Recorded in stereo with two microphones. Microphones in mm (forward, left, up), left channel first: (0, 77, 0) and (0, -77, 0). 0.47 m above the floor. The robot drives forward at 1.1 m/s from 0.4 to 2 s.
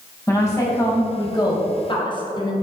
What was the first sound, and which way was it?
A woman speaking, 20° left (ahead or behind).